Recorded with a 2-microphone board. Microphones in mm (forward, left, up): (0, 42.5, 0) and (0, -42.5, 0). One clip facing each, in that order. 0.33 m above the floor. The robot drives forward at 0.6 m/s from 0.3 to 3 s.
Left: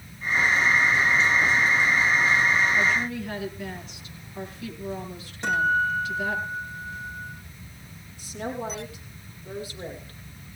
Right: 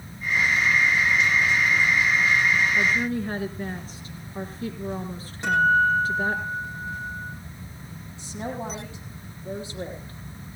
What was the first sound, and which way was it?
A woman speaking, 35° right (ahead or behind).